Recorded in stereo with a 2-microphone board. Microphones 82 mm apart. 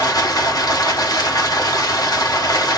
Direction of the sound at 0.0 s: 50° left (ahead or behind).